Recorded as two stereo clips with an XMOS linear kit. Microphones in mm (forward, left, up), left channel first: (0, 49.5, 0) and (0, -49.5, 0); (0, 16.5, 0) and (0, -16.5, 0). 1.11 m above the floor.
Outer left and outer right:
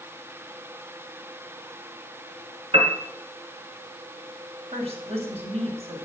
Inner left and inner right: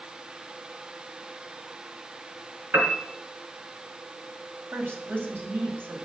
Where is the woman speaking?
85° right, 6 m.